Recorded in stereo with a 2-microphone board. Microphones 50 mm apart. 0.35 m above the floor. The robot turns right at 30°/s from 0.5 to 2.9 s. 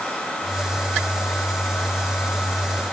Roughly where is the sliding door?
I don't hear a sliding door.